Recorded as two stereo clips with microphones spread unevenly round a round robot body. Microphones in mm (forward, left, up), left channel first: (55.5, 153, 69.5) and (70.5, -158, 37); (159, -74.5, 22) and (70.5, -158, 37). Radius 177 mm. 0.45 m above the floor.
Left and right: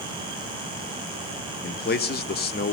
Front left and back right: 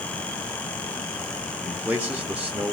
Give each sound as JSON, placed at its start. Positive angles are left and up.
{"t": 1.6, "sound": "a man speaking", "azimuth_deg": 140, "distance_m": 1.0}